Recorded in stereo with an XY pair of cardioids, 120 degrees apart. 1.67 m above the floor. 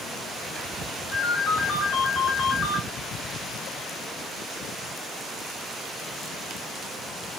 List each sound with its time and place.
1.1 s a ringtone: 25° left, 1.9 m